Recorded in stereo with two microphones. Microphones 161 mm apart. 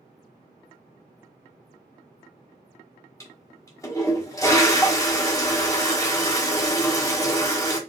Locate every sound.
3.2 s a toilet flushing: 20° left (ahead or behind), 1.3 m